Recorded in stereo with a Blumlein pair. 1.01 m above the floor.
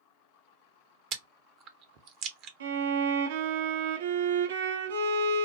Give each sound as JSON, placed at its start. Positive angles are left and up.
{"t": 1.1, "sound": "chewing", "azimuth_deg": -40, "distance_m": 0.8}
{"t": 2.6, "sound": "a violin", "azimuth_deg": -60, "distance_m": 0.8}